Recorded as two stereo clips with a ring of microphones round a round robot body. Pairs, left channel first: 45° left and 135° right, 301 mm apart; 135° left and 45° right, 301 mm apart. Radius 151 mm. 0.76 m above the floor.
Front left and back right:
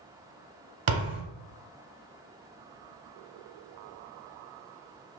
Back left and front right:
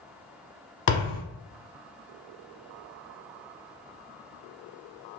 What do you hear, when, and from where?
0.9 s a thud: straight behind, 0.9 m